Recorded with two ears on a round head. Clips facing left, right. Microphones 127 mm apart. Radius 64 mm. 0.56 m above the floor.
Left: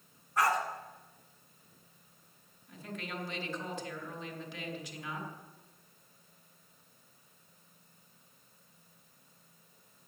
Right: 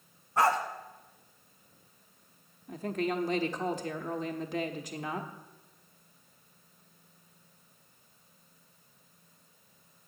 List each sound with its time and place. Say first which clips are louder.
0.4 s a dog barking: right 3 dB; 25° right (ahead or behind), 1.2 m
2.7 s a woman speaking: right 11 dB; 35° right (ahead or behind), 1.0 m